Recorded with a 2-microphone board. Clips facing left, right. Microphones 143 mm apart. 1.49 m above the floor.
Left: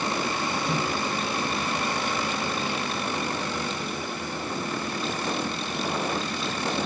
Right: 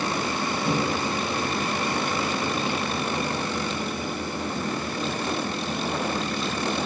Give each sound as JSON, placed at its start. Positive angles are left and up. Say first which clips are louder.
{"t": 0.7, "sound": "a microwave", "louder": "right 3 dB", "side_deg": -55, "distance_m": 1.2}